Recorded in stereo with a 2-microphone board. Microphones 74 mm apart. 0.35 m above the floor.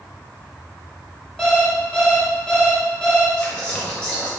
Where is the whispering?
20° left (ahead or behind), 1.3 m.